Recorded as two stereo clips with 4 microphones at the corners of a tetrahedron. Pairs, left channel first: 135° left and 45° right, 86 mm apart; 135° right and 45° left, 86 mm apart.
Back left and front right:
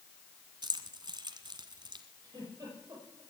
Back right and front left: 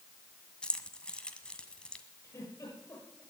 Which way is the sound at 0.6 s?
60° right.